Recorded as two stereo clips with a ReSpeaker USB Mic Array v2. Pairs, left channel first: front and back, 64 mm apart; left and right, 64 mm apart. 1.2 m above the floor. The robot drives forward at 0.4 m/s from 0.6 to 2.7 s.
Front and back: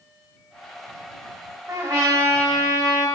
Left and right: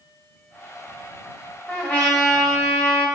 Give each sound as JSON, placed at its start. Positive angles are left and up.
{"t": 1.7, "sound": "a trumpet", "azimuth_deg": 150, "distance_m": 3.0}